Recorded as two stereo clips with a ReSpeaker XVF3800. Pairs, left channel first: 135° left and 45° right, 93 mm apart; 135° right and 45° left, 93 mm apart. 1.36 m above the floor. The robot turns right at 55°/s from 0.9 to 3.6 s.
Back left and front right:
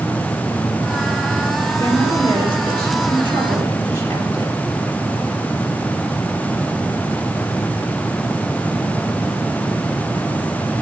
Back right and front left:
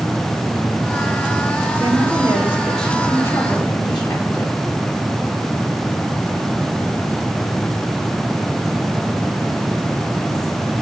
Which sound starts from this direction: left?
A woman speaking, at 1.8 s.